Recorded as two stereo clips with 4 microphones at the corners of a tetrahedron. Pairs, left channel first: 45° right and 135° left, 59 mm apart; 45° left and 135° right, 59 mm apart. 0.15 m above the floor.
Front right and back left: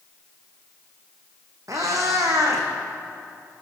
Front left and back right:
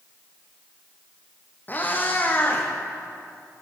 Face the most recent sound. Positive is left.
turn(degrees=105)